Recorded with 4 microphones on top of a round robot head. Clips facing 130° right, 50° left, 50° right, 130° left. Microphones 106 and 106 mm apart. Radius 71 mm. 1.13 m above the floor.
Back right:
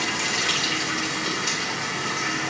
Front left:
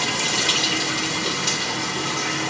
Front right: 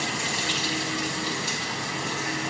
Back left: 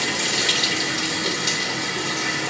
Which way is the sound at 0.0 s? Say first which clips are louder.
Front left 2 dB, back left 4 dB; 120° left.